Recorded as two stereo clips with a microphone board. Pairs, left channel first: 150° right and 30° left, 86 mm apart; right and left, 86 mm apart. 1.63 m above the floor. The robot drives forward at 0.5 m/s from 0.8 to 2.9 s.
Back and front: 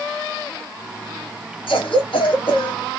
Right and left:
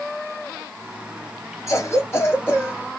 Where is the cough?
145° right, 1.2 m; by 2.8 s 155° right, 1.7 m.